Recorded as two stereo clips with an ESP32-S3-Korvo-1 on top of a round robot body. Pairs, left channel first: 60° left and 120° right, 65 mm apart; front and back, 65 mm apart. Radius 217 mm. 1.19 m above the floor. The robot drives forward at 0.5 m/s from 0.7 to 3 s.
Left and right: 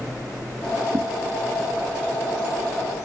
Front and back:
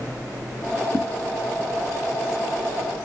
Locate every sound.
0.9 s a whoosh: 55° right, 0.7 m; by 1.1 s 60° right, 0.7 m